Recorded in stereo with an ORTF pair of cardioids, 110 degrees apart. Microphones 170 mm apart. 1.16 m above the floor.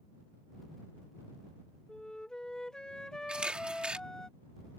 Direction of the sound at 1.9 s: 5° left.